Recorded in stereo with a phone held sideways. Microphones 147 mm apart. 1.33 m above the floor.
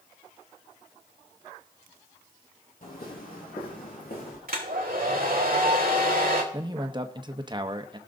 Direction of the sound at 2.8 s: 65° left (ahead or behind).